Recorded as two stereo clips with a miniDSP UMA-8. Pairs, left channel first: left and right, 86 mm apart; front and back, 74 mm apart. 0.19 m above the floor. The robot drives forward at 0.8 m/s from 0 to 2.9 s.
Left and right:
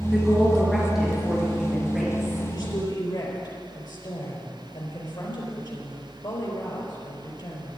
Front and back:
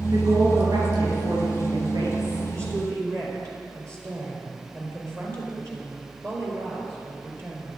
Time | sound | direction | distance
0.1 | a woman speaking | 175° right | 3 m
2.5 | a woman speaking | 135° left | 4 m